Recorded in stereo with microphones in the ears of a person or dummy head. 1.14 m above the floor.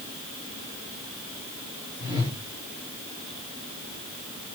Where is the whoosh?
15° right (ahead or behind), 4.5 m.